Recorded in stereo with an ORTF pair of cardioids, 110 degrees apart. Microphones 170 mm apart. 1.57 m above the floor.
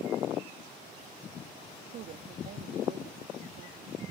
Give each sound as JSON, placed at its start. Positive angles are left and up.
{"t": 1.9, "sound": "a woman speaking", "azimuth_deg": -60}